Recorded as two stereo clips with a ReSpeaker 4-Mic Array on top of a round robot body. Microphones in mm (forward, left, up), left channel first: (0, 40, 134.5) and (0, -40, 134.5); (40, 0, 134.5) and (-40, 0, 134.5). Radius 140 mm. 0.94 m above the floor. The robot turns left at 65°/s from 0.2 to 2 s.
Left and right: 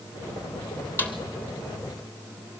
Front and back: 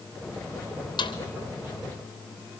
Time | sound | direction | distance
1.0 | a snare drum | 25° left | 3 m